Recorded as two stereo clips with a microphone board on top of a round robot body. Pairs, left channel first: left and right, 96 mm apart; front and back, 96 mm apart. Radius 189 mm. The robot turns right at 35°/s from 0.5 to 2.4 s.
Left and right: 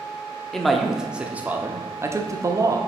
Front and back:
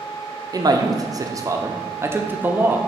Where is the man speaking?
175° left, 1.0 m; by 2.8 s 120° right, 1.0 m.